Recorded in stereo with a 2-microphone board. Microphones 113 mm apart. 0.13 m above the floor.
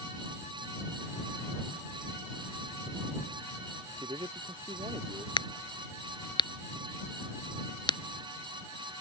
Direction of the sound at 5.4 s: 45° left (ahead or behind).